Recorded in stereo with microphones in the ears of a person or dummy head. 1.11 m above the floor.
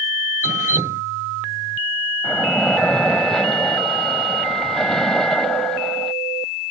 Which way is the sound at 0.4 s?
20° right (ahead or behind).